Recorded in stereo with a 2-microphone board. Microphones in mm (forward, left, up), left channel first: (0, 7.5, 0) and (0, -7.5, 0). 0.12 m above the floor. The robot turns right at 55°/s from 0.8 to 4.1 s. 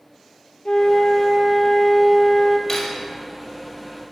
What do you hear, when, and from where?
0.7 s a flute: 100° left, 1.0 m; by 2.6 s 165° right, 1.0 m
2.7 s cutlery clinking: 20° left (ahead or behind), 2 m; by 3.1 s 40° left (ahead or behind), 2 m